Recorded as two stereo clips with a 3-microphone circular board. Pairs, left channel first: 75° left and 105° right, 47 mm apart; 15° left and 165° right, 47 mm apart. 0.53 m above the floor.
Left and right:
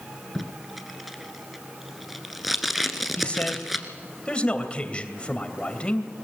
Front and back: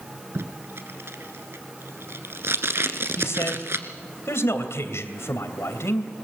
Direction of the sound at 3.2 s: 10° left.